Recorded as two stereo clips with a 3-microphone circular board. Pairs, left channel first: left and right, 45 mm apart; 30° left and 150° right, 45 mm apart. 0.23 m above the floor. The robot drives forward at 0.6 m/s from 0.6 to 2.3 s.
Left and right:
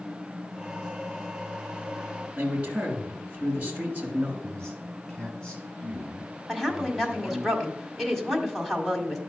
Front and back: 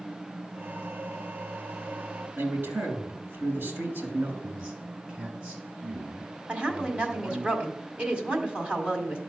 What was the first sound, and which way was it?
A man speaking, 145° right.